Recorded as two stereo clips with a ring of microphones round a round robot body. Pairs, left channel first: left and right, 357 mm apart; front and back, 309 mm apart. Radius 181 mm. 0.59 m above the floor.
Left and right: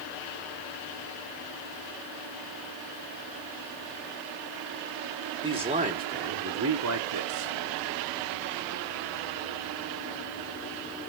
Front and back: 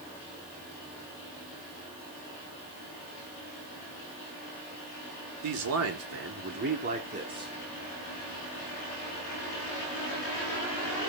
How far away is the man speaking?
About 2 m.